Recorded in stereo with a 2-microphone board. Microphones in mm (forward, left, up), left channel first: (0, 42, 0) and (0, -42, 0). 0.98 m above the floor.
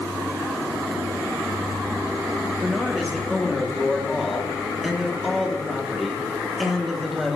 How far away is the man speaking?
About 1.7 m.